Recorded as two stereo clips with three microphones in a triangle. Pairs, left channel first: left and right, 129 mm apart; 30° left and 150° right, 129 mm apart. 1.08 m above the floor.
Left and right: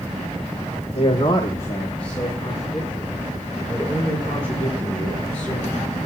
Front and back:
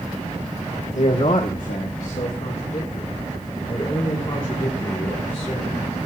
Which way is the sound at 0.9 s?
50° left.